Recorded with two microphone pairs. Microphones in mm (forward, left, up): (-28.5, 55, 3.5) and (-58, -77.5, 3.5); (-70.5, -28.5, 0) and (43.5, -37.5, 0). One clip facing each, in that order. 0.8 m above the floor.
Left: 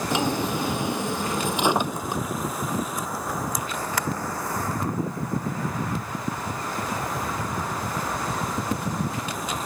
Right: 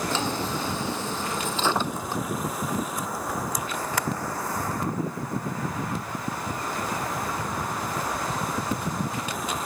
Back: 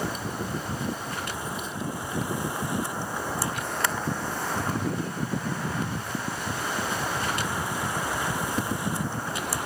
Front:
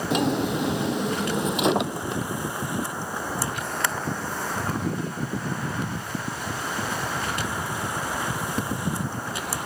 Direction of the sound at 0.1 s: 5° left.